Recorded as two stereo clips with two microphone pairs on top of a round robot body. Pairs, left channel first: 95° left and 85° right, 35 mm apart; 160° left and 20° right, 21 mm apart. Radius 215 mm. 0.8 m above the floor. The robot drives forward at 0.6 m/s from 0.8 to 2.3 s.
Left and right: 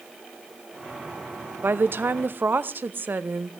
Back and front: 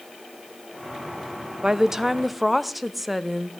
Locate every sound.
1.6 s a woman speaking: 75° right, 1.0 m; by 3.5 s 105° right, 1.0 m